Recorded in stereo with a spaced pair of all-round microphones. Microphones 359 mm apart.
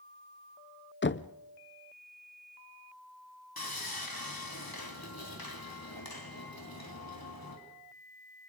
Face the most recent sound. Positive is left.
turn(degrees=75)  # may be behind; listen again after turning